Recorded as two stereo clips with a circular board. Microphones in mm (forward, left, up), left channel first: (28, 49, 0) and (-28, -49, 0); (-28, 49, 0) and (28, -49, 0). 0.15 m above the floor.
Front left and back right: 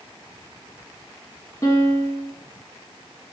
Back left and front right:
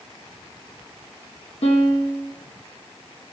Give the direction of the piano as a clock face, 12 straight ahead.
8 o'clock.